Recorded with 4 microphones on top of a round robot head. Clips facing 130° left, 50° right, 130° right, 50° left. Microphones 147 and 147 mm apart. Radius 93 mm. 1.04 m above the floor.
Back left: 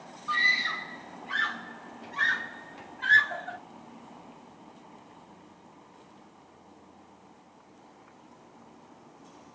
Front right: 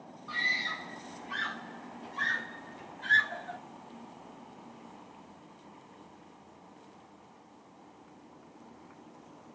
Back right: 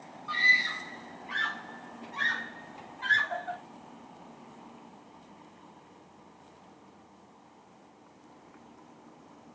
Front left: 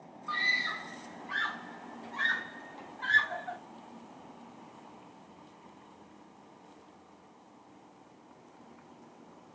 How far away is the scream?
About 4 m.